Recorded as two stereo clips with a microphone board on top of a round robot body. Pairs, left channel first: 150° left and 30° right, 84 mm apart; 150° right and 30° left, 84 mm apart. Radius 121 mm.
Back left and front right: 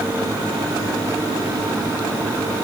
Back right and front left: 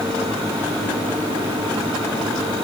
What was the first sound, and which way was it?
Only background noise.